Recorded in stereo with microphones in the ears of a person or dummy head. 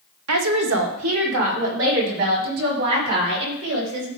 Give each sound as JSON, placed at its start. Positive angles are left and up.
{"t": 0.3, "sound": "a woman speaking", "side_deg": -80, "distance_m": 1.2}